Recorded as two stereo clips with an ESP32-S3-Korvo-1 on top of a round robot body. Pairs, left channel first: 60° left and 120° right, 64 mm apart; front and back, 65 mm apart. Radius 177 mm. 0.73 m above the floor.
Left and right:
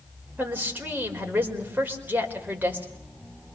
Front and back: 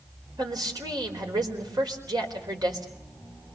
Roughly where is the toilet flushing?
I don't hear a toilet flushing.